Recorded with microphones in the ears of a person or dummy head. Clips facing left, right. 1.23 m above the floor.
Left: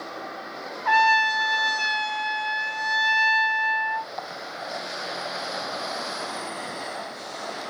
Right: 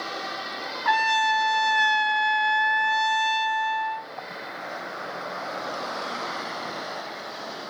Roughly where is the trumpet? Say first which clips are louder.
Left 2 dB; right.